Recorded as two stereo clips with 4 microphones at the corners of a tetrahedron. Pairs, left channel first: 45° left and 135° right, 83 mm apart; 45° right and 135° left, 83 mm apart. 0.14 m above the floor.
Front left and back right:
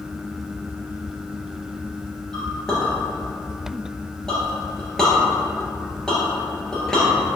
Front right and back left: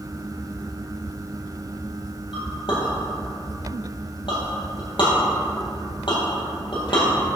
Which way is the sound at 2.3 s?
35° right.